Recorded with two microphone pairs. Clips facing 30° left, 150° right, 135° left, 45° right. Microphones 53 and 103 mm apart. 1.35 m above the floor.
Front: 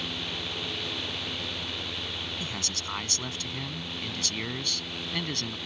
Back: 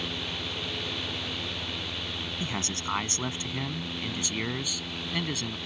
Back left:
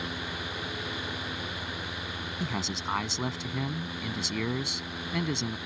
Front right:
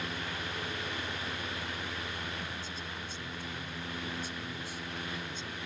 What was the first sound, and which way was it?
A man speaking, 140° left.